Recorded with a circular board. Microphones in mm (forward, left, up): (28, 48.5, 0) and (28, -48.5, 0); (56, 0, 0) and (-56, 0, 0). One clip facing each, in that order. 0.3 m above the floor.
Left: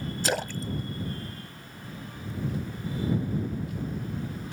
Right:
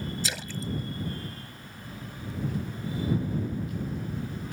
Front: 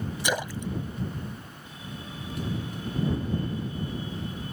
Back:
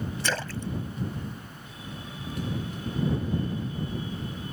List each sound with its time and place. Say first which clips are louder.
0.2 s a splash: left 5 dB, front 3 dB; 70° left